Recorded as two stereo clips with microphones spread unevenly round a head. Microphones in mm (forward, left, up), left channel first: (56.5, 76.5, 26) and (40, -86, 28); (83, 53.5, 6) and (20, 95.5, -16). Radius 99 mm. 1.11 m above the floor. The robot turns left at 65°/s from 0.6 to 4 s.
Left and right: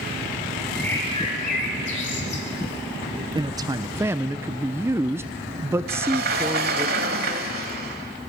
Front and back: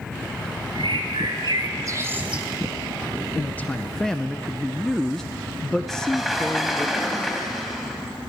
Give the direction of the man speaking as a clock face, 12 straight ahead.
4 o'clock.